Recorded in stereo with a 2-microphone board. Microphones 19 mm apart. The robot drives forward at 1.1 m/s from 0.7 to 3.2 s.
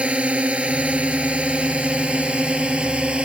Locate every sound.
0.0 s a drone: 70° right (ahead or behind); by 3.3 s 55° right (ahead or behind)